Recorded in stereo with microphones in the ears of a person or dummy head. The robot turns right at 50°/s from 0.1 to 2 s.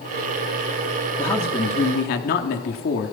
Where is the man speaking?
10° left, 3 m; by 3.1 s 50° left, 3 m.